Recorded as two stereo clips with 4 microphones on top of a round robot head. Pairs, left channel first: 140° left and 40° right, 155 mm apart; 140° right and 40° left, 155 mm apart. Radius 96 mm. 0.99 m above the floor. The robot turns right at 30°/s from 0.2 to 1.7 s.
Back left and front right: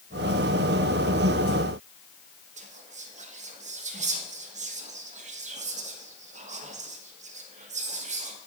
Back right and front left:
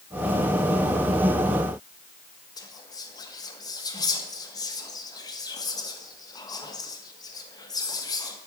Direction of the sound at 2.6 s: 75° right.